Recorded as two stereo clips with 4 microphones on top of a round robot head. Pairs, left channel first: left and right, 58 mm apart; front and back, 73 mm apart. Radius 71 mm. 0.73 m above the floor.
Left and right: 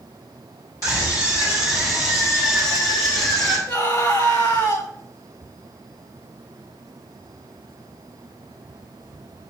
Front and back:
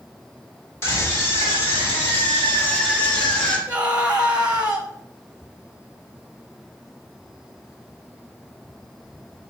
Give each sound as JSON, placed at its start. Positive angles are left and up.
{"t": 0.8, "sound": "a scream", "azimuth_deg": 50, "distance_m": 5.5}
{"t": 3.7, "sound": "a scream", "azimuth_deg": 110, "distance_m": 4.5}